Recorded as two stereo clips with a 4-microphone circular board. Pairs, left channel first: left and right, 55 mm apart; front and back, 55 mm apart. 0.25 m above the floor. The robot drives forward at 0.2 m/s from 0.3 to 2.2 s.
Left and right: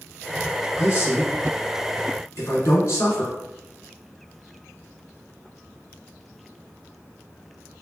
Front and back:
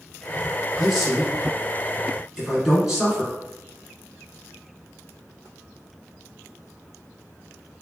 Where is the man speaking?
90° left, 1.9 m; by 3.3 s 100° left, 1.9 m.